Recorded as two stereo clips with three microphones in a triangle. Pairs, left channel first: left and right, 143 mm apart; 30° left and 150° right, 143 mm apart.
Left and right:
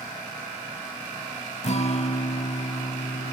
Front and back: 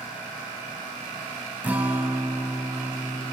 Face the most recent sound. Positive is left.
turn(degrees=130)